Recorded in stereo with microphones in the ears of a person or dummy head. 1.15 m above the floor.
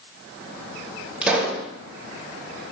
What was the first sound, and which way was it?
A pop, 5° right (ahead or behind).